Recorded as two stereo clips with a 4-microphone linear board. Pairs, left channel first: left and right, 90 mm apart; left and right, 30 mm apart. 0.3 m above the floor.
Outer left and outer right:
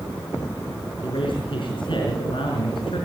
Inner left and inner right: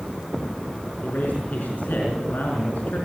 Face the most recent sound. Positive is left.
turn(degrees=70)  # may be behind; listen again after turning